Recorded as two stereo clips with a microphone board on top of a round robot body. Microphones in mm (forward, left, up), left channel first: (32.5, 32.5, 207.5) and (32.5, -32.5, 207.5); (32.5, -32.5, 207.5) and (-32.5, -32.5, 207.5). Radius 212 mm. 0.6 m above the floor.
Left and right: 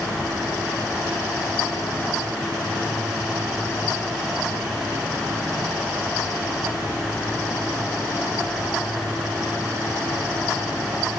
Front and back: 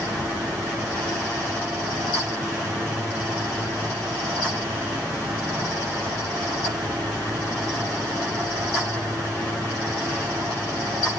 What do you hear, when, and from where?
Only background noise.